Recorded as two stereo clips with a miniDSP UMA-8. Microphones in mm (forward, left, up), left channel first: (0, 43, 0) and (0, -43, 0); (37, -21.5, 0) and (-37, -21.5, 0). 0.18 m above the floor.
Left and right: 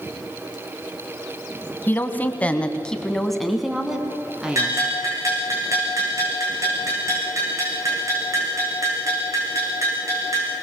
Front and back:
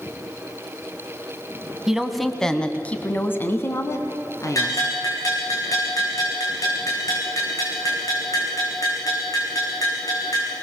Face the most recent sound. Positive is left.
turn(degrees=-35)